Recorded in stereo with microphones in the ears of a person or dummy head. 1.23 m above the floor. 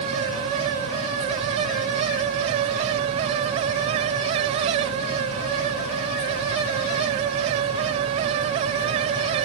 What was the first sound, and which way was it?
Only background noise.